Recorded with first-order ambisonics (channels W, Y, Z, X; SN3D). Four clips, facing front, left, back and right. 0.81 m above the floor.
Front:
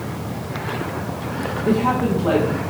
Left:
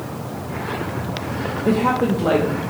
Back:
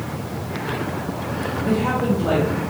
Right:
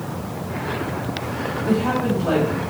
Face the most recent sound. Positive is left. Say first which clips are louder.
# left 3 dB, front 2 dB
turn(degrees=80)